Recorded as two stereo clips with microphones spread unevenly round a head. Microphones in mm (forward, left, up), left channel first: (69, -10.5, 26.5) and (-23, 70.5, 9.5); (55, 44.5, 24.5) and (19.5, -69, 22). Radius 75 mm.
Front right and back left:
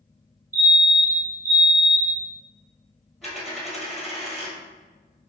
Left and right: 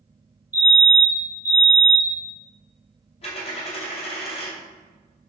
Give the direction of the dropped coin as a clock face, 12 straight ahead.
10 o'clock.